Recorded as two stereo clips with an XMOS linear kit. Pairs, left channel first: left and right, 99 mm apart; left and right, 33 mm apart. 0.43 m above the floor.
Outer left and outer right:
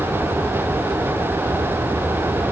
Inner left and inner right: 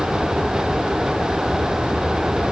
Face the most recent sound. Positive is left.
No sound to turn to.